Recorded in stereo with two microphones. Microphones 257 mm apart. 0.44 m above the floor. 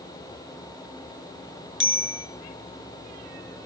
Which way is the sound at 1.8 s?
50° right (ahead or behind).